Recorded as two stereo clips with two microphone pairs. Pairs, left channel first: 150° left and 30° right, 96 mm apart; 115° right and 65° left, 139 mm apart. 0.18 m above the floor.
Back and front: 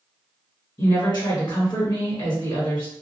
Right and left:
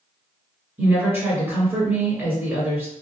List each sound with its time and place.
0.8 s a woman speaking: 140° left, 1.6 m